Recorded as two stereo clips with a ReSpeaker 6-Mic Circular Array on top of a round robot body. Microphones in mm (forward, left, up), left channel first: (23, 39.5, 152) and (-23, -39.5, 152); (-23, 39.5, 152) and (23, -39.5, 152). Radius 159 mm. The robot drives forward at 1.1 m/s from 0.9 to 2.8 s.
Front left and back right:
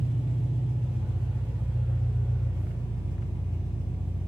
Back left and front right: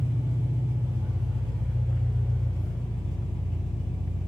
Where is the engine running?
125° right, 0.8 m; by 4.3 s 165° right, 2.5 m.